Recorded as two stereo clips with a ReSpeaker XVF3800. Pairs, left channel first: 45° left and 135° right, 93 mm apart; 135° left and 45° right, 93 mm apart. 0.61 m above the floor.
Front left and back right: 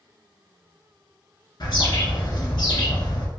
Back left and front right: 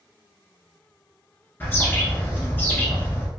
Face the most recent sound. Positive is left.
turn(degrees=70)